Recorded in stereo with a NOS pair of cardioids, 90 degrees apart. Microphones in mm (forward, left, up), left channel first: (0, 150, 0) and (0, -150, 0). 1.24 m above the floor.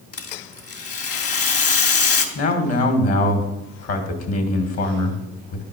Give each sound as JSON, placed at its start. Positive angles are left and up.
{"t": 0.1, "sound": "a rattle", "azimuth_deg": 55, "distance_m": 2.5}
{"t": 2.4, "sound": "a man speaking", "azimuth_deg": 55, "distance_m": 2.5}